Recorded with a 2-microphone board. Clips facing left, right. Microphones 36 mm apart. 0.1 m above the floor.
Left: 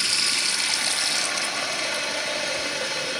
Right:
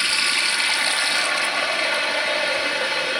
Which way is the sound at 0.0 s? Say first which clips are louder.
Right 4 dB; 25° right (ahead or behind).